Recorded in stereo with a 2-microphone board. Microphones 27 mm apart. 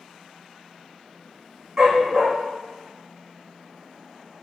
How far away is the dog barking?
About 3 m.